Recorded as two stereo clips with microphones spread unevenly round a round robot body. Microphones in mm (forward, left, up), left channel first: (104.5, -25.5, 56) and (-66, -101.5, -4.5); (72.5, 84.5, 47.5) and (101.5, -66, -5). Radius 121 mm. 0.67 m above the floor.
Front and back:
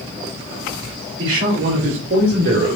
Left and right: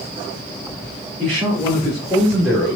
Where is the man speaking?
165° right, 3 m; by 2.8 s 160° right, 1.9 m.